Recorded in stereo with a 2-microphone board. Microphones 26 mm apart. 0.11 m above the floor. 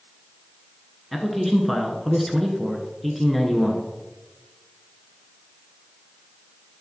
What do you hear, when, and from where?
1.1 s a man speaking: centre (ahead or behind), 1.2 m